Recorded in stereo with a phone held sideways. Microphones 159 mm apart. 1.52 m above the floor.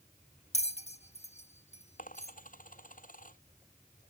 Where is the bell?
45° left (ahead or behind).